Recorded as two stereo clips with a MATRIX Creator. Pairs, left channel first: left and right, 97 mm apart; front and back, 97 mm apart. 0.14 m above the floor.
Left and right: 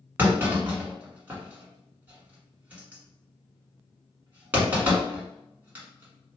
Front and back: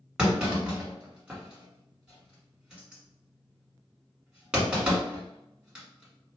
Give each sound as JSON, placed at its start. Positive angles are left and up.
{"t": 0.2, "sound": "a clunk", "azimuth_deg": -115, "distance_m": 1.4}